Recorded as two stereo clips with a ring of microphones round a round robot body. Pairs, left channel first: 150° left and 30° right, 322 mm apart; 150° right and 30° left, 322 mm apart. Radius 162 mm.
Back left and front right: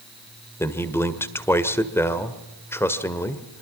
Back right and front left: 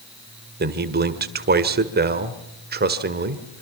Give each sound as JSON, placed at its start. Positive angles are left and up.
{"t": 0.6, "sound": "a man speaking", "azimuth_deg": 70, "distance_m": 1.7}